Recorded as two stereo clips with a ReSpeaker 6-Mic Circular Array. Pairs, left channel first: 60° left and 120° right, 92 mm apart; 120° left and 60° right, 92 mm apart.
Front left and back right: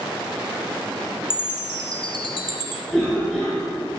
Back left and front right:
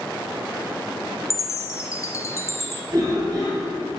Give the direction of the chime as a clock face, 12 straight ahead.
10 o'clock.